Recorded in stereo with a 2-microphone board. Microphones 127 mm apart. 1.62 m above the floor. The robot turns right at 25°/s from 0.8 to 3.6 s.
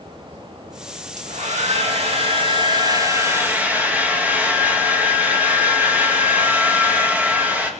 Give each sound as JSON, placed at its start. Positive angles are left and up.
{"t": 1.2, "sound": "a hair dryer", "azimuth_deg": -75, "distance_m": 2.0}